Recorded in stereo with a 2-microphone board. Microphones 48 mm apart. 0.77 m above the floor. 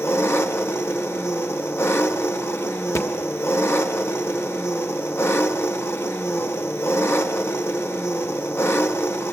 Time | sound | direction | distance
0.0 | an engine running | 55° left (ahead or behind) | 1.2 m
3.0 | a thud | 85° left | 1.3 m